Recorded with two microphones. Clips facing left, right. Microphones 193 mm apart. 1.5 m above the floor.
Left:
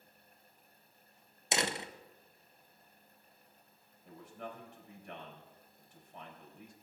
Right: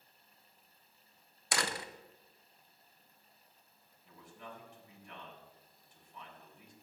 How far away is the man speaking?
About 4 m.